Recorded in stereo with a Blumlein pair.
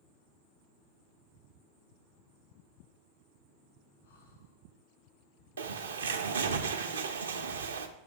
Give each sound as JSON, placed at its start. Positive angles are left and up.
{"t": 4.0, "sound": "breathing", "azimuth_deg": 65, "distance_m": 1.6}
{"t": 5.6, "sound": "a bird", "azimuth_deg": -70, "distance_m": 0.6}